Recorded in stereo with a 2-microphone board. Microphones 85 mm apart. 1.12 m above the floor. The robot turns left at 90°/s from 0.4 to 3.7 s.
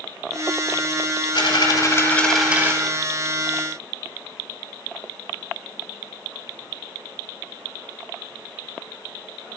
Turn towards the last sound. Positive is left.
turn(degrees=-120)